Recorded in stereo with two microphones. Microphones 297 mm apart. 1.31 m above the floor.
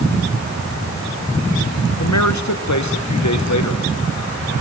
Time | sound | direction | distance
2.0 | a man speaking | 65° left (ahead or behind) | 1.2 m